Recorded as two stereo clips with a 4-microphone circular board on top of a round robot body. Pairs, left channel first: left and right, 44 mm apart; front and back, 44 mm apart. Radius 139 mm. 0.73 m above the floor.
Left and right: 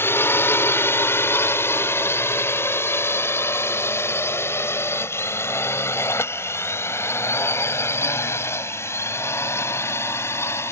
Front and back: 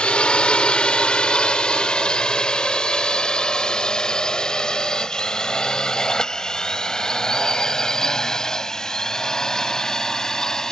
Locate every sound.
0.0 s a drone: 65° left; by 10.7 s 75° left